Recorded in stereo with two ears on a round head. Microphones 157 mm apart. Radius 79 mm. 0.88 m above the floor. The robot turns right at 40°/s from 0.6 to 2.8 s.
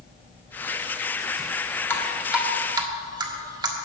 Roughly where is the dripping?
Centre.